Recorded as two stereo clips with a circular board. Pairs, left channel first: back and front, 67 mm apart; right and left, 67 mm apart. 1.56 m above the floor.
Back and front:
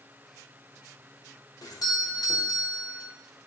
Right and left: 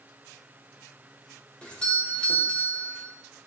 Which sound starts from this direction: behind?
A doorbell, at 1.6 s.